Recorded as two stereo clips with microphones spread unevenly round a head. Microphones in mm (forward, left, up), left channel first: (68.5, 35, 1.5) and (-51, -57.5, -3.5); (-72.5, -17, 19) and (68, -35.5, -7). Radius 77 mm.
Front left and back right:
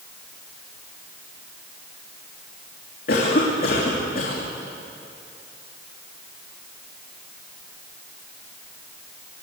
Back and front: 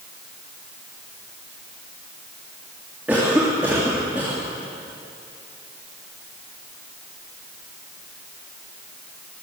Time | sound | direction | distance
3.1 | a cough | 75° left | 3 m